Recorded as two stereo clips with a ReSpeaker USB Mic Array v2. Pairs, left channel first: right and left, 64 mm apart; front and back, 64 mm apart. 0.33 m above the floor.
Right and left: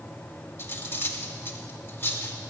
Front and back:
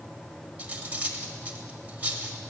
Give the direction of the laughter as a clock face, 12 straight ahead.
I don't hear laughter.